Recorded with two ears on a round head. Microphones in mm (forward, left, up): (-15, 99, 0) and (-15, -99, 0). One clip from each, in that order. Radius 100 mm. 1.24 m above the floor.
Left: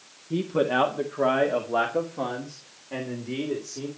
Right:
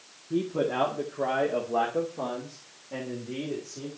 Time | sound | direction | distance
0.3 | a man speaking | 55° left (ahead or behind) | 1.6 m